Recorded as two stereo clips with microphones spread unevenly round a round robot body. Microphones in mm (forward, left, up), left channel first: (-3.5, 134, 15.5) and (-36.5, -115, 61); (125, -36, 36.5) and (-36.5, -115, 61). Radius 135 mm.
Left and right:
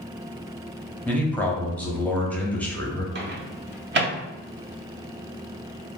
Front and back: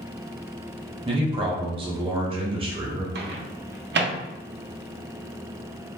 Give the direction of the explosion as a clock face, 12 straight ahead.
I don't hear an explosion.